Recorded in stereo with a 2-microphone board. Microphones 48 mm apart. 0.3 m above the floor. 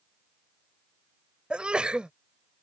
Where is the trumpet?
I don't hear a trumpet.